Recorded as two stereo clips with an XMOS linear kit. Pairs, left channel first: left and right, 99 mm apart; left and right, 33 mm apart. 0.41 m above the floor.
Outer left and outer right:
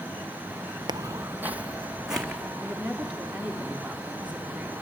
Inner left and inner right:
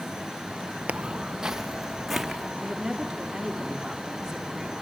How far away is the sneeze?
I don't hear a sneeze.